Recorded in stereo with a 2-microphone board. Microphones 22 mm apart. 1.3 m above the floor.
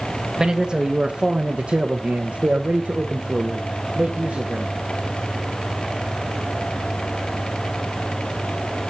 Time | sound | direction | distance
0.4 | a man speaking | 25° right (ahead or behind) | 1.5 m